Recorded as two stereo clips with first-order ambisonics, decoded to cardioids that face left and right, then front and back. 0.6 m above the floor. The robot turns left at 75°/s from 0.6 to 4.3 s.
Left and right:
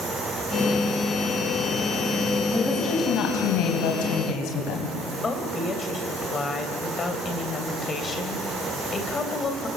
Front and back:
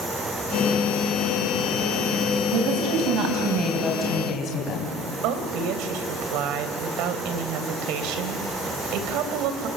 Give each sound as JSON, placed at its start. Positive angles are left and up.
{"t": 2.5, "sound": "a woman speaking", "azimuth_deg": -170, "distance_m": 3.5}
{"t": 5.2, "sound": "a woman speaking", "azimuth_deg": 160, "distance_m": 3.0}